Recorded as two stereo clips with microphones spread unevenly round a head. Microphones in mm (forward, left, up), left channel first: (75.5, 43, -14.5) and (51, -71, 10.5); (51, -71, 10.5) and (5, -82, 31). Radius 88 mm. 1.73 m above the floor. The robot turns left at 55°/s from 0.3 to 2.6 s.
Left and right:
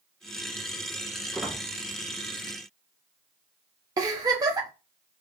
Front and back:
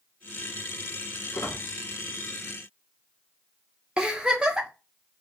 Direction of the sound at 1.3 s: 20° right.